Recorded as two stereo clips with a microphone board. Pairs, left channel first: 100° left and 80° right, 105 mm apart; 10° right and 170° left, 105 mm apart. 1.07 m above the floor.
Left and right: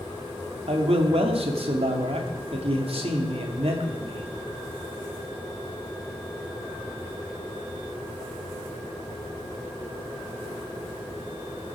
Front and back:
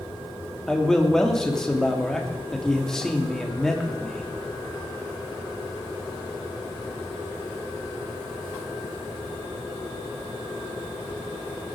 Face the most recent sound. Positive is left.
turn(degrees=-95)